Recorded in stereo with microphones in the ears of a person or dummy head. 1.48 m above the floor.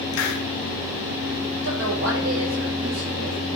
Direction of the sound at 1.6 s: 70° right (ahead or behind).